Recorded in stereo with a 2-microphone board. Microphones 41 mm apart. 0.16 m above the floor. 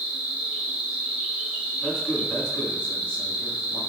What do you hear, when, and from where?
0.0 s an insect: 25° right (ahead or behind), 0.7 m
1.8 s a man speaking: 25° left (ahead or behind), 2.0 m